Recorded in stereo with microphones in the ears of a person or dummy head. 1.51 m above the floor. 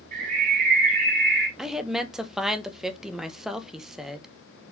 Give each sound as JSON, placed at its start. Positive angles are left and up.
{"t": 0.1, "sound": "a bird", "side_deg": -45, "distance_m": 2.5}
{"t": 1.6, "sound": "a woman speaking", "side_deg": 0, "distance_m": 0.7}